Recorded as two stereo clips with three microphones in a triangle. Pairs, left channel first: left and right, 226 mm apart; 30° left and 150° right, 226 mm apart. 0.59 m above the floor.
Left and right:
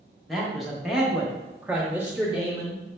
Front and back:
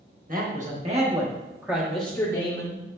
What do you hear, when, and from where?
0.3 s a man speaking: straight behind, 1.1 m; by 2.8 s 10° right, 1.0 m